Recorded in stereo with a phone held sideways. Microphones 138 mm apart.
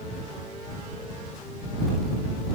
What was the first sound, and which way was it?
Only background noise.